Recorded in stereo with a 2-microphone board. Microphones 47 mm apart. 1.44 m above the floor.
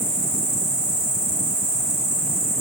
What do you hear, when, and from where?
0.0 s an insect: 85° left, 1.1 m